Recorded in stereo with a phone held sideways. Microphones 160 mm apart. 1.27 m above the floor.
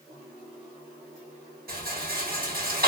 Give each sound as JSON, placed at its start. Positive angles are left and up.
{"t": 1.7, "sound": "a rattle", "side_deg": -70, "distance_m": 1.3}